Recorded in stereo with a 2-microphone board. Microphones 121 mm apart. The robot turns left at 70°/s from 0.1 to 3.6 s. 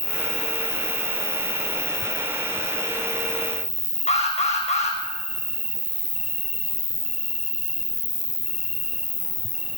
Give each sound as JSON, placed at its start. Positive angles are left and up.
{"t": 0.0, "sound": "an insect", "azimuth_deg": -50, "distance_m": 2.0}
{"t": 4.1, "sound": "an alarm", "side_deg": 70, "distance_m": 7.0}